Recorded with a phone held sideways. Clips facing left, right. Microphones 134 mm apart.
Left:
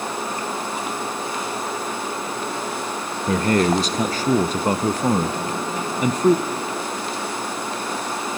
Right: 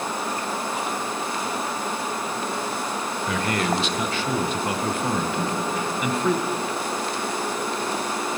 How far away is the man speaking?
About 0.5 m.